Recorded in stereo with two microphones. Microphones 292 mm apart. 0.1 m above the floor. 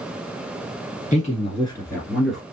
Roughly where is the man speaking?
Left.